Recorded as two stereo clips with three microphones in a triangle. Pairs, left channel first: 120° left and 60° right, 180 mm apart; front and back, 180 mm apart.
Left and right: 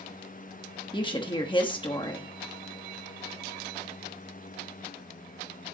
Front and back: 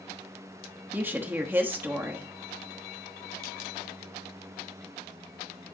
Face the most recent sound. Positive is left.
turn(degrees=115)